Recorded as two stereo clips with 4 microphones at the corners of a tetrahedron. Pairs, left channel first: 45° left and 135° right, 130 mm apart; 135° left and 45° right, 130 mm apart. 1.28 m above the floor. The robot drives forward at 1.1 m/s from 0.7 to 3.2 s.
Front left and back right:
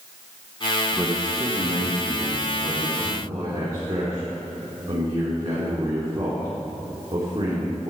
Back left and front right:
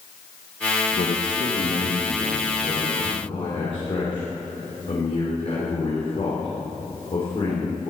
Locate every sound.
0.9 s a man speaking: 155° left, 0.7 m; by 7.9 s 175° left, 3 m